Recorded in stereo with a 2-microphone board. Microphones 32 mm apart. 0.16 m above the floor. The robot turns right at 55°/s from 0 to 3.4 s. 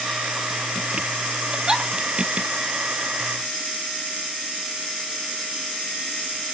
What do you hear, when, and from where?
1.5 s a giggle: 35° right (ahead or behind), 1.5 m; by 1.9 s 15° right (ahead or behind), 1.5 m